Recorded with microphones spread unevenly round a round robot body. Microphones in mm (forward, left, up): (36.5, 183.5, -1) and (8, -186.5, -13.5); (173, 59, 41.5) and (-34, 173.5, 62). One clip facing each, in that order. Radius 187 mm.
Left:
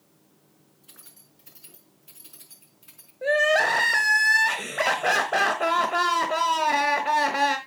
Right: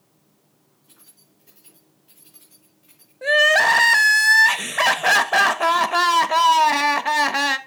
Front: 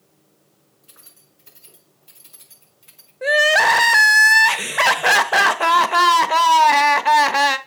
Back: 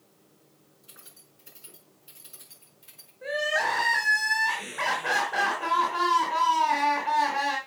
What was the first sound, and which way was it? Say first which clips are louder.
Keys jangling: even, even; 80° left.